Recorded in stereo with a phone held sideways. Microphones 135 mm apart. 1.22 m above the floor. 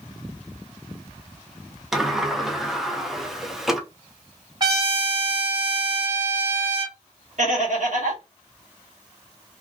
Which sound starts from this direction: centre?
A sliding door, at 1.9 s.